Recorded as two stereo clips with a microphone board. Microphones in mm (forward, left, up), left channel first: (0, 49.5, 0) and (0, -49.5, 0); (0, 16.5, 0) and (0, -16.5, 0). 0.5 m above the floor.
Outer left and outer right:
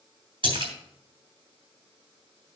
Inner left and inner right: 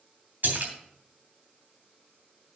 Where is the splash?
55° right (ahead or behind), 3 m.